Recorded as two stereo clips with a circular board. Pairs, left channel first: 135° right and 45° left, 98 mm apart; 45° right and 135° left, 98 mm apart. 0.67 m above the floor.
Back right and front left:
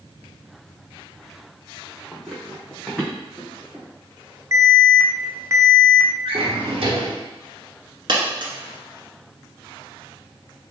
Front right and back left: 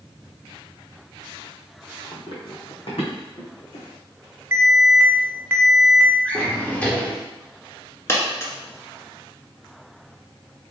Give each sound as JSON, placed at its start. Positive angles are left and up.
{"t": 2.1, "sound": "running footsteps", "azimuth_deg": -55, "distance_m": 1.0}
{"t": 4.5, "sound": "an alarm", "azimuth_deg": 85, "distance_m": 0.6}
{"t": 6.2, "sound": "a drawer", "azimuth_deg": 30, "distance_m": 1.0}
{"t": 8.1, "sound": "a dropped coin", "azimuth_deg": 15, "distance_m": 1.2}